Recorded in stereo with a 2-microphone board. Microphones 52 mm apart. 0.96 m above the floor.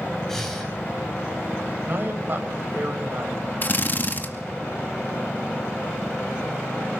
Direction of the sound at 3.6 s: 40° left (ahead or behind).